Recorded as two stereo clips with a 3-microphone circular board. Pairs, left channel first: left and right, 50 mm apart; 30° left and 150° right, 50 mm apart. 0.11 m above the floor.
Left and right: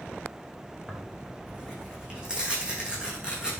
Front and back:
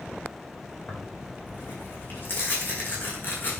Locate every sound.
0.9 s tearing paper: 20° right, 4.5 m